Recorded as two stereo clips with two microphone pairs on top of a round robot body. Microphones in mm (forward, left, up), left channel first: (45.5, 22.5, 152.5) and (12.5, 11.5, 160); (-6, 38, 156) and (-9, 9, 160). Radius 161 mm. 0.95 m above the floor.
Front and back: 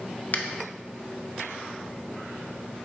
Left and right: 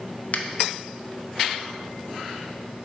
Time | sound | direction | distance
0.3 | a finger snap | 55° left | 0.7 m